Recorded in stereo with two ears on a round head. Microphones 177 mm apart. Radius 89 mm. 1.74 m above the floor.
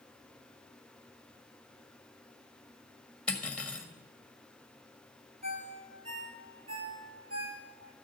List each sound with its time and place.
3.3 s cutlery clinking: 5° left (ahead or behind), 1.7 m
5.4 s a ringtone: 35° right (ahead or behind), 7.5 m